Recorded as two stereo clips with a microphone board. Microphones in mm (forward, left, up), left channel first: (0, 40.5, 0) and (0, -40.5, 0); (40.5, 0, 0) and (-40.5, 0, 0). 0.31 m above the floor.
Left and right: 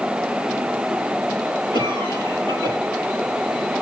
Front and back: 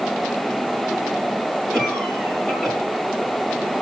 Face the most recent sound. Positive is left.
turn(degrees=90)